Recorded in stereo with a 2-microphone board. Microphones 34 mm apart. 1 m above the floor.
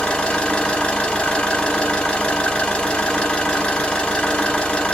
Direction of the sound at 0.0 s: 30° left (ahead or behind).